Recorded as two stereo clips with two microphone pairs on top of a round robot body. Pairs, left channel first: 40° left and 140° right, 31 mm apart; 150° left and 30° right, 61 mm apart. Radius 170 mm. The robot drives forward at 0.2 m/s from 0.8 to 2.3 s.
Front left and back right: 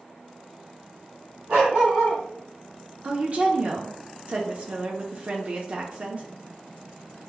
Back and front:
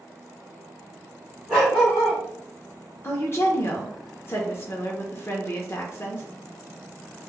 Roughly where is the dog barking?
Behind right.